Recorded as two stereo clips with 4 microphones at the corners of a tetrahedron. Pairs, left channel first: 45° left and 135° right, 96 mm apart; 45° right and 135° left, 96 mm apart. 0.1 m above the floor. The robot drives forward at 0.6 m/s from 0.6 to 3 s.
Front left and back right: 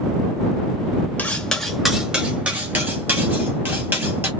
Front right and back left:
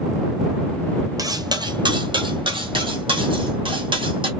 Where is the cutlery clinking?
115° left, 0.9 m; by 4.3 s 155° left, 1.6 m.